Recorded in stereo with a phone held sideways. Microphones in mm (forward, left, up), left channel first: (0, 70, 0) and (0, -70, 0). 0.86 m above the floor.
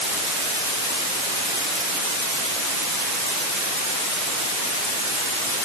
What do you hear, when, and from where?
Only background noise.